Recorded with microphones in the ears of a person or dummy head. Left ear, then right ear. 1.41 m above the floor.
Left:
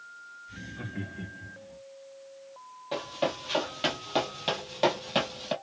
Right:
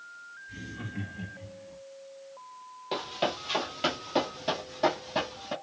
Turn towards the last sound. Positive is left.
turn(degrees=35)  # may be behind; listen again after turning